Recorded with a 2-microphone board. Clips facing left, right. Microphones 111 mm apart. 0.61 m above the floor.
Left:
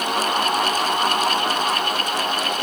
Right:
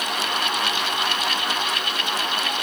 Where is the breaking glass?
I don't hear breaking glass.